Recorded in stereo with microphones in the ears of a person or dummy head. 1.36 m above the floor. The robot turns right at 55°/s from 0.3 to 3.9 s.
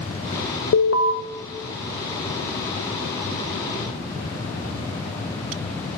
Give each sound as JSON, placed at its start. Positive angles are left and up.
{"t": 0.7, "sound": "an alarm", "side_deg": 85, "distance_m": 1.3}